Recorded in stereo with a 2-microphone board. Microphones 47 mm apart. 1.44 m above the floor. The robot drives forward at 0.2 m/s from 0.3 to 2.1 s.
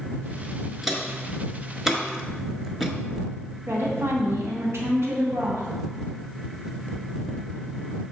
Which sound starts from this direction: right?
A woman speaking, at 3.7 s.